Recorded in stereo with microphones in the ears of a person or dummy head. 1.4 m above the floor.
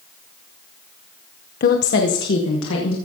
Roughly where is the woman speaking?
Left.